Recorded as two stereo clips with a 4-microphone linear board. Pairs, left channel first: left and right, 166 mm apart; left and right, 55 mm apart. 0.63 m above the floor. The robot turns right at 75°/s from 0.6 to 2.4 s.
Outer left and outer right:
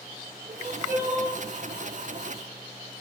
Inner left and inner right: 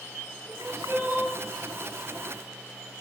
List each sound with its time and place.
0.5 s crying: 90° right, 6 m; by 1.4 s 30° right, 6 m